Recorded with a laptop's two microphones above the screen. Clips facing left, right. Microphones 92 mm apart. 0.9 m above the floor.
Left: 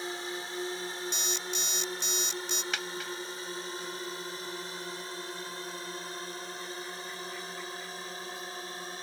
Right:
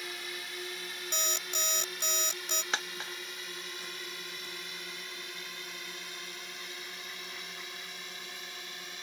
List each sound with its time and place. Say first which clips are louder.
0.0 s a drone: left 6 dB; 30° left (ahead or behind); by 9.0 s 35° left (ahead or behind)
1.1 s an alarm clock: left 2 dB; 50° right (ahead or behind)
2.7 s a dropped coin: left 1 dB; 30° right (ahead or behind)